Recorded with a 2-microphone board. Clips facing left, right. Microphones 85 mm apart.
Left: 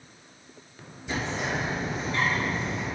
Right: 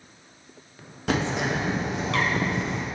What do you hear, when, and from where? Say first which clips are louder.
1.1 s a bird: right 5 dB; 75° right (ahead or behind), 0.7 m